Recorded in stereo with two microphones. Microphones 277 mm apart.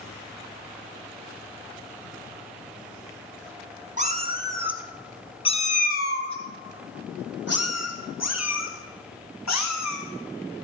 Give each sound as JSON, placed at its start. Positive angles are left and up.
{"t": 4.0, "sound": "a cat meowing", "side_deg": -30, "distance_m": 1.4}